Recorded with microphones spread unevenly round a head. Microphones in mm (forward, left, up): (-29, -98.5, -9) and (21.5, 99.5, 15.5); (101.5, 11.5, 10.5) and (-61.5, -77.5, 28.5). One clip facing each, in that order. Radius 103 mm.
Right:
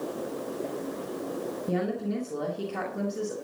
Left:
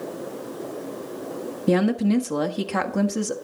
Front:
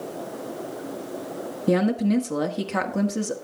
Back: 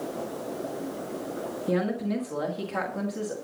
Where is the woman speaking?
75° left, 1.6 m.